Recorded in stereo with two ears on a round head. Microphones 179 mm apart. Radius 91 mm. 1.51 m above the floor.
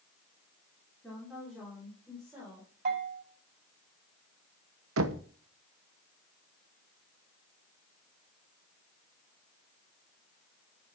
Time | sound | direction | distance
1.0 | a woman speaking | 5° left (ahead or behind) | 3.5 m
2.9 | a bell | 45° right (ahead or behind) | 3.5 m
5.0 | knocking | 75° right (ahead or behind) | 1.0 m